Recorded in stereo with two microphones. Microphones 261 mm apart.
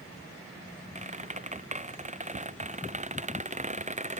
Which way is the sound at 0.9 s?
25° right (ahead or behind).